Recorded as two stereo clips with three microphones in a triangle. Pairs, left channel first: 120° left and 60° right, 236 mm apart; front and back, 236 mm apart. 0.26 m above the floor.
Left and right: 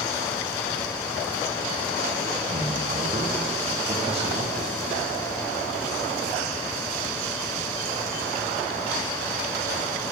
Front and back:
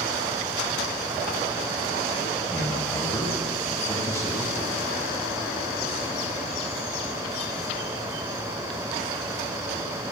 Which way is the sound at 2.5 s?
60° right.